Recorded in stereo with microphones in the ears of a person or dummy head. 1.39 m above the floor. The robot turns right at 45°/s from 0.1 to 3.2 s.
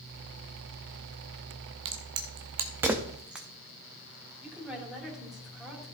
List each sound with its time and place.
1.9 s a crack: 25° right (ahead or behind), 0.9 m; by 3.5 s 5° right (ahead or behind), 0.9 m
4.4 s a woman speaking: 5° right (ahead or behind), 3.5 m